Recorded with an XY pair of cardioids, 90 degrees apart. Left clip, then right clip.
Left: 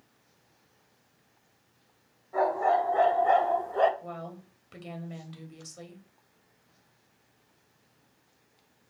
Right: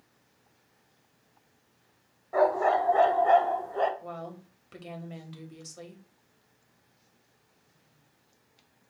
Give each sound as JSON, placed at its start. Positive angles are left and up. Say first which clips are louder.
{"t": 2.3, "sound": "a dog barking", "louder": "right 1 dB", "azimuth_deg": -65, "distance_m": 1.6}
{"t": 4.0, "sound": "a woman speaking", "louder": "right 1 dB", "azimuth_deg": -5, "distance_m": 1.8}